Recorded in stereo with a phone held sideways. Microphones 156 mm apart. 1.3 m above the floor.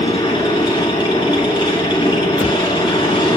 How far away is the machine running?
About 6.5 m.